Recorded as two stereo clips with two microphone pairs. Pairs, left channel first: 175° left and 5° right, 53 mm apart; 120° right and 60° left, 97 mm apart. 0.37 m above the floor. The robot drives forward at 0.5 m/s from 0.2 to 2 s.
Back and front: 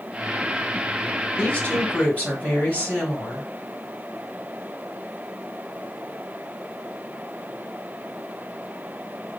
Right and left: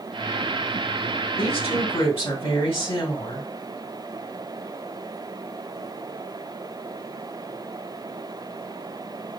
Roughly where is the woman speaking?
Behind right.